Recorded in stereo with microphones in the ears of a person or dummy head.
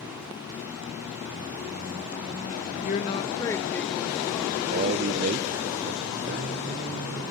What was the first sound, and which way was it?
A woman speaking, 45° left (ahead or behind).